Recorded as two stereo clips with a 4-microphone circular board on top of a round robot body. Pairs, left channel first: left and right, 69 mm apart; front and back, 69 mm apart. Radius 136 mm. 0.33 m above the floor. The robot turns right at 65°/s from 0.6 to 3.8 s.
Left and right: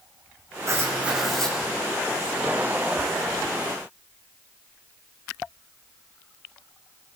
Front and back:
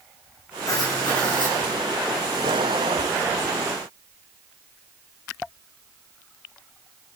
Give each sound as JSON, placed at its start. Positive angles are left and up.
{"t": 0.7, "sound": "writing", "azimuth_deg": -45, "distance_m": 6.0}